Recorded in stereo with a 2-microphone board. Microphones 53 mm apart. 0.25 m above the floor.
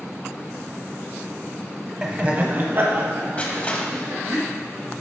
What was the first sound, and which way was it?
Laughter, 15° right (ahead or behind).